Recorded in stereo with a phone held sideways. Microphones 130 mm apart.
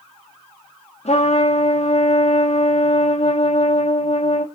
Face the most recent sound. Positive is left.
turn(degrees=55)  # may be behind; listen again after turning